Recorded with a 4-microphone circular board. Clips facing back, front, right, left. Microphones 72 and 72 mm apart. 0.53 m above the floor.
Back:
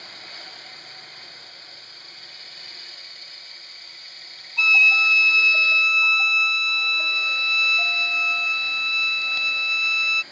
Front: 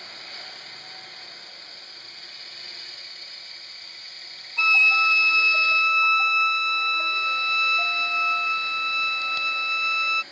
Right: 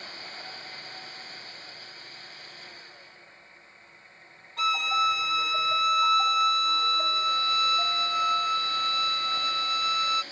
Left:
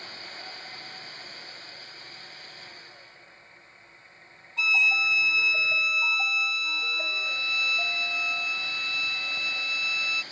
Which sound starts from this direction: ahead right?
A violin, at 4.6 s.